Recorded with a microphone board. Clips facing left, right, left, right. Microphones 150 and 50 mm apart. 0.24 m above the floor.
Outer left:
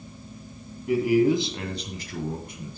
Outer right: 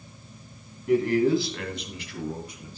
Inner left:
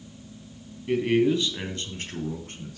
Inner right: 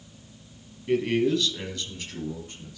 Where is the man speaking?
Centre (ahead or behind), 1.9 m; by 2.8 s 60° left (ahead or behind), 2.5 m.